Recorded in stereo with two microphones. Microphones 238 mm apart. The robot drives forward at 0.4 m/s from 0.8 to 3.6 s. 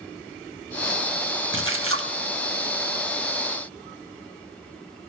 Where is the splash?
60° right (ahead or behind), 0.9 m; by 2.1 s 75° right (ahead or behind), 0.9 m.